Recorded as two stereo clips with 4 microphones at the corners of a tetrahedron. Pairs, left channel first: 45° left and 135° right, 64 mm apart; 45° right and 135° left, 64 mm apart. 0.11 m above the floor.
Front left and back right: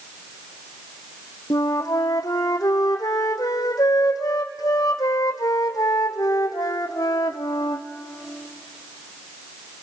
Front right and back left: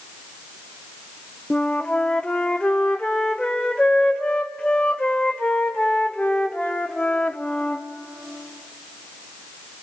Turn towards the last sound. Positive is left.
turn(degrees=30)